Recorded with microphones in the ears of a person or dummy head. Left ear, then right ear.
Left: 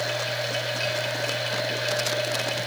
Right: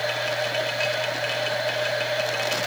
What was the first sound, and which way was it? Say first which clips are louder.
A machine running: right 2 dB; 25° right (ahead or behind).